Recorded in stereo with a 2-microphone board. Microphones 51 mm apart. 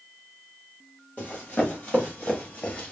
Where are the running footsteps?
25° left (ahead or behind), 2 m.